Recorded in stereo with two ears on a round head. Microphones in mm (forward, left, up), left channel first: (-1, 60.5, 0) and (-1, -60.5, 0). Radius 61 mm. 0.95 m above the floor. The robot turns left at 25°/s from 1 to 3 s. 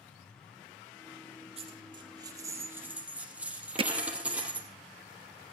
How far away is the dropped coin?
About 5 m.